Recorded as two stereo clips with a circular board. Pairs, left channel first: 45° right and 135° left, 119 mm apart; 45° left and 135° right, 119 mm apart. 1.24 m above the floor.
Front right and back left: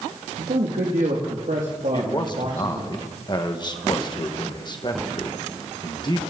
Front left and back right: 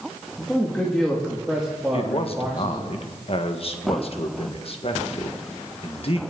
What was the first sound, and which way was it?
A man speaking, 125° left.